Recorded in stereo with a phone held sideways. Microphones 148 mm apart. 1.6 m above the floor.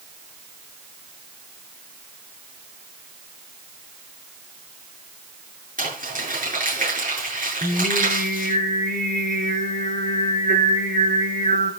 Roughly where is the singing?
Right.